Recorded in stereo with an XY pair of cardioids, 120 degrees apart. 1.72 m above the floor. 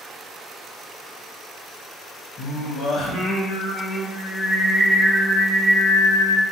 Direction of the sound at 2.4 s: 65° left.